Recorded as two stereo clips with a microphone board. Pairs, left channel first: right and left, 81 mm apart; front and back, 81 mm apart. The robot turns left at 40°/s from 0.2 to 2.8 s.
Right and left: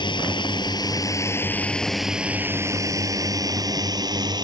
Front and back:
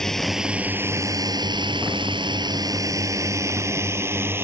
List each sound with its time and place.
0.0 s a drone: 85° right; by 4.5 s 120° left